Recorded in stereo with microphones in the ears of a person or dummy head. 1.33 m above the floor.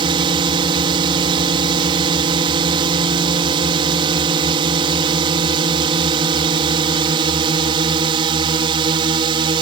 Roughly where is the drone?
Right.